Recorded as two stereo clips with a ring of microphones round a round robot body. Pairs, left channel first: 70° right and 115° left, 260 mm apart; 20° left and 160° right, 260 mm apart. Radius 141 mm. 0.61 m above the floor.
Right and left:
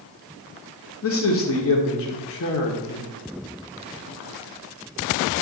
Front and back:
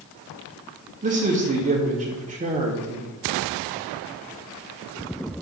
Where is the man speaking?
100° right, 1.5 m.